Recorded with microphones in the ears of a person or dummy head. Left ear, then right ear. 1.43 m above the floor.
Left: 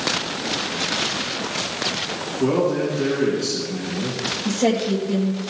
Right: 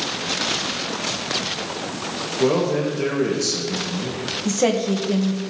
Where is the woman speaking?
55° right (ahead or behind), 1.5 m.